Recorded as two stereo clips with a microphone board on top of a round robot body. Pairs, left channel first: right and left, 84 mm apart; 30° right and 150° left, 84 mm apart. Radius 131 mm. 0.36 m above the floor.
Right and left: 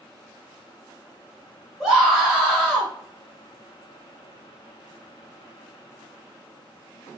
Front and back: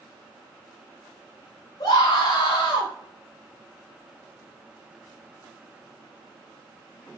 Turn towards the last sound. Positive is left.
turn(degrees=5)